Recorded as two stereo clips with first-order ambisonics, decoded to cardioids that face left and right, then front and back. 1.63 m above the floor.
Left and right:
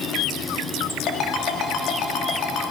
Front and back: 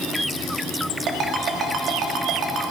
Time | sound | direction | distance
1.1 | a ringtone | 130° left | 1.8 m